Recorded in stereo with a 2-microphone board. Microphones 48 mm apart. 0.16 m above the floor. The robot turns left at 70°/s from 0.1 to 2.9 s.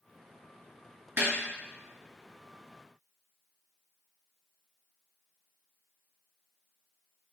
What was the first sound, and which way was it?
A snare drum, 55° right (ahead or behind).